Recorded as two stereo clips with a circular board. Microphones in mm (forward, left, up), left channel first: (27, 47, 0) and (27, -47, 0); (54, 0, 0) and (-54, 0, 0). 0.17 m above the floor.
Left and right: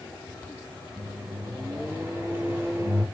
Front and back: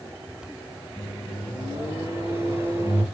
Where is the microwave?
140° right, 1.1 m.